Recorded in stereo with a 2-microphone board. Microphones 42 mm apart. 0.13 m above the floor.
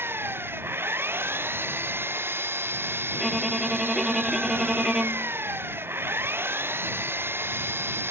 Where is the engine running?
65° right (ahead or behind).